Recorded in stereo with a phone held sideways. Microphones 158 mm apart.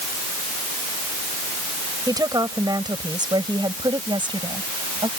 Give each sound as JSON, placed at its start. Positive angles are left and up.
{"t": 2.1, "sound": "a woman speaking", "side_deg": -25}